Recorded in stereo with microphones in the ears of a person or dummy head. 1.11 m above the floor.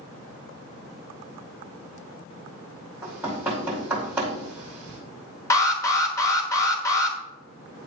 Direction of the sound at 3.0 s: 5° right (ahead or behind).